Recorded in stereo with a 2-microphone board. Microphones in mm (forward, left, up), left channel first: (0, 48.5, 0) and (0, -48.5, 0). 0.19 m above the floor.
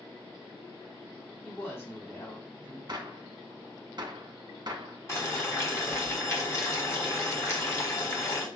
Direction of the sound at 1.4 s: 25° left (ahead or behind).